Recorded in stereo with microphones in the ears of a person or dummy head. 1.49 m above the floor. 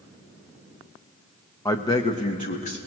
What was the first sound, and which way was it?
A man speaking, 15° left (ahead or behind).